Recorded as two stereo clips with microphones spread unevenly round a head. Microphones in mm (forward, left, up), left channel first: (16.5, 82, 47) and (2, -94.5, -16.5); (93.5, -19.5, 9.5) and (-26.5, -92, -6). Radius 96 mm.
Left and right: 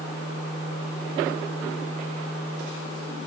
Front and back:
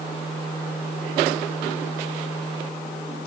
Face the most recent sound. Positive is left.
No sound to turn to.